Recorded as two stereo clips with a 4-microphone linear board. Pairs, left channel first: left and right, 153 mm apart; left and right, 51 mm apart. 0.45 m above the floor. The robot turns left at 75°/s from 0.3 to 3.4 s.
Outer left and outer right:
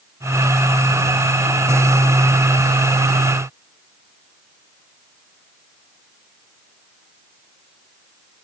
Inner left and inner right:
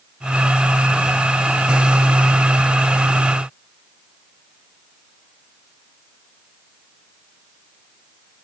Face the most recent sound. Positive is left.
No sound to turn to.